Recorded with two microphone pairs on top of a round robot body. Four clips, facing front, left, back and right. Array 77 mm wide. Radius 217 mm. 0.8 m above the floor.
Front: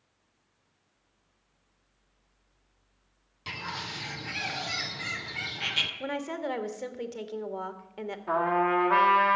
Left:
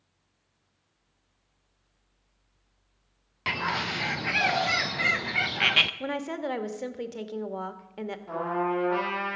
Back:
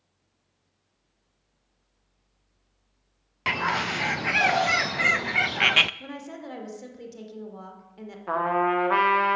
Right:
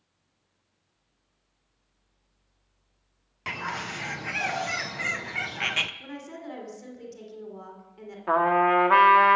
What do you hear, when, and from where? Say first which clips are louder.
3.5 s a bird: left 4 dB, back 12 dB; 170° left, 0.6 m
6.0 s a woman speaking: left 8 dB, front 6 dB; 60° left, 1.9 m
8.3 s a trumpet: right 8 dB, back 2 dB; 105° right, 1.6 m